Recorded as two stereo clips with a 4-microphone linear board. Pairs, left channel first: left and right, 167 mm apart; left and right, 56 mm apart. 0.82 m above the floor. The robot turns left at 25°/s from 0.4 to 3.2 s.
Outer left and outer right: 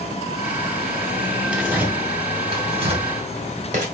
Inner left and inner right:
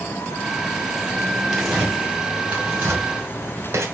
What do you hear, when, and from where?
1.5 s tearing paper: 5° right (ahead or behind), 2.5 m; by 3.9 s 45° right (ahead or behind), 2.5 m